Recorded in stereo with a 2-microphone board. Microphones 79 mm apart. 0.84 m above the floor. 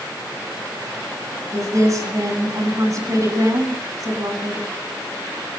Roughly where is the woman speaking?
Right.